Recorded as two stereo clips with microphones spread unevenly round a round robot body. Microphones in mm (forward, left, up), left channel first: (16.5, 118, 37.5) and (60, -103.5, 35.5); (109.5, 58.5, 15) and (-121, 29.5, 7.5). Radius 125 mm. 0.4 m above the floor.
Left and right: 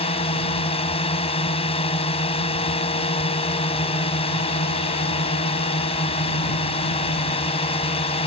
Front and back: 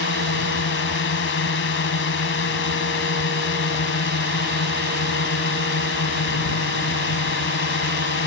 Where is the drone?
40° left.